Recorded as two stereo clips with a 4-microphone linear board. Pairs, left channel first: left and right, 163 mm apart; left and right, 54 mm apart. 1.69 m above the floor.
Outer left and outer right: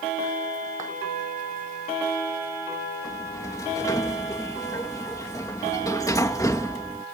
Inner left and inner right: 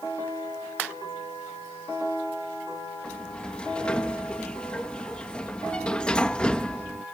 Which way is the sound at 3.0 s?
20° left (ahead or behind).